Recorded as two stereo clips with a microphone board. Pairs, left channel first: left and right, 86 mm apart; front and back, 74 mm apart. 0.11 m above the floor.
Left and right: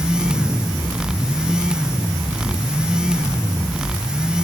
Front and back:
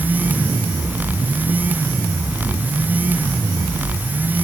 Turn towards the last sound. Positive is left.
No sound to turn to.